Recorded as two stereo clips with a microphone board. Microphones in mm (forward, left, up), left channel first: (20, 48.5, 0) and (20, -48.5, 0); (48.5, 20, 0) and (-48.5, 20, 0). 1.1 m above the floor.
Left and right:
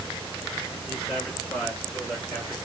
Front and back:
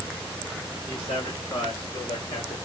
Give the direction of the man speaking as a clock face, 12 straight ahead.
12 o'clock.